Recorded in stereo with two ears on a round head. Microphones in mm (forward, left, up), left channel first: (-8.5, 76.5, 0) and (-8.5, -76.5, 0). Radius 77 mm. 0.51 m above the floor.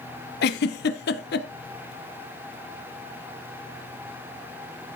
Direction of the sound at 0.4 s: 70° left (ahead or behind).